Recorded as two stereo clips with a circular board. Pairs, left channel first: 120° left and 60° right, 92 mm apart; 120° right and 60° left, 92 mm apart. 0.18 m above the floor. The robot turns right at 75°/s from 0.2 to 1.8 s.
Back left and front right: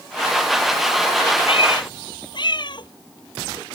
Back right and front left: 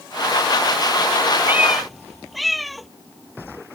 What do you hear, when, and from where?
1.5 s a cat meowing: 125° left; by 2.9 s 150° left